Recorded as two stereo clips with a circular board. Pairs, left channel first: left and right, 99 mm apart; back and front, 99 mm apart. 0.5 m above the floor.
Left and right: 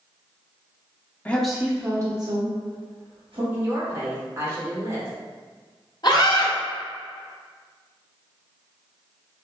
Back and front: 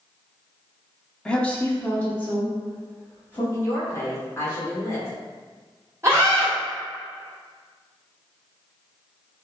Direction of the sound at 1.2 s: 120° left.